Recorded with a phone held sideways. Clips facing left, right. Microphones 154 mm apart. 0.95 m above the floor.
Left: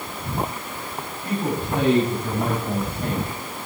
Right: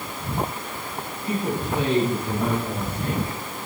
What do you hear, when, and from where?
1.2 s a man speaking: 70° left (ahead or behind), 9 m; by 3.4 s 60° left (ahead or behind), 6.5 m